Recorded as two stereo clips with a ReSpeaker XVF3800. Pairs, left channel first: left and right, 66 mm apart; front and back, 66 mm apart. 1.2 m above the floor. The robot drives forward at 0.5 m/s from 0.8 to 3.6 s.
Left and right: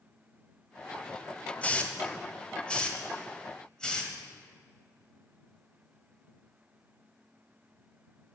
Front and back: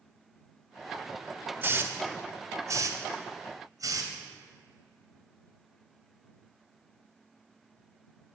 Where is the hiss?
145° left, 1.0 m; by 4.1 s 165° left, 1.8 m.